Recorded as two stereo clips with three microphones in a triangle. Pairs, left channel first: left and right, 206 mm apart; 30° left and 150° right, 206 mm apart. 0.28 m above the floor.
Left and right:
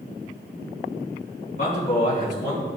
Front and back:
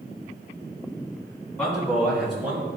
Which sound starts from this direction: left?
A man speaking, at 1.6 s.